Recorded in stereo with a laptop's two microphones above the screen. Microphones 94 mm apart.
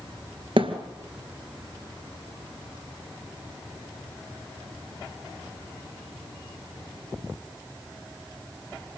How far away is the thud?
About 2 m.